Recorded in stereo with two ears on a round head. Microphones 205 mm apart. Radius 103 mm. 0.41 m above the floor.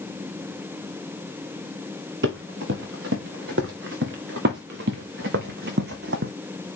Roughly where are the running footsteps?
Right.